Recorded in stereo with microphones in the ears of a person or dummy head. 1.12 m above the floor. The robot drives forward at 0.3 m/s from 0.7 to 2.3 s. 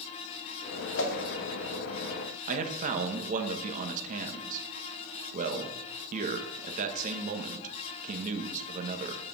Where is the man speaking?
35° right (ahead or behind), 1.3 m.